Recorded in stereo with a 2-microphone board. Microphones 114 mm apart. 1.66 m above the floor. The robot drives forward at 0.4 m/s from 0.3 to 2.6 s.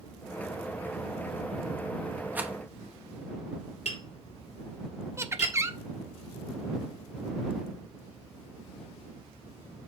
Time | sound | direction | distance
2.4 | a rattle | 15° right (ahead or behind) | 0.8 m
3.9 | tapping | 80° left | 4 m
5.2 | laughter | 25° right (ahead or behind) | 0.7 m